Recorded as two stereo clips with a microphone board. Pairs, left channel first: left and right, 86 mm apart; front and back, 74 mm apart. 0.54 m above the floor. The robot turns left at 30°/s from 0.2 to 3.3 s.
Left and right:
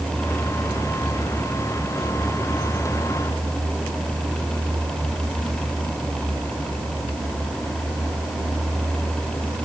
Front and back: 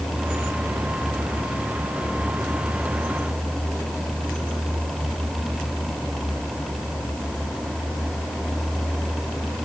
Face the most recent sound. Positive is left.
No sound to turn to.